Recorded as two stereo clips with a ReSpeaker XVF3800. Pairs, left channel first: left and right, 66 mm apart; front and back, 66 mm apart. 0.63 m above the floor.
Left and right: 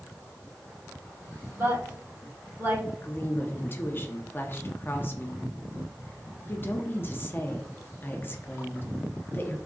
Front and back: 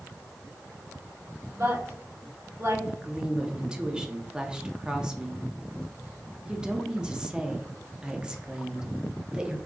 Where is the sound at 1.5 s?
135° right, 2 m.